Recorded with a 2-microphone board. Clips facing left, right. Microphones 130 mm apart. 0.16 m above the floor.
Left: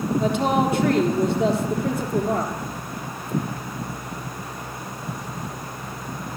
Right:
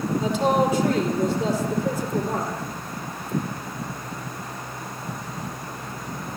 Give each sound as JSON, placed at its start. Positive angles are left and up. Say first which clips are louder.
{"t": 0.2, "sound": "a woman speaking", "louder": "right 1 dB", "side_deg": 65, "distance_m": 4.5}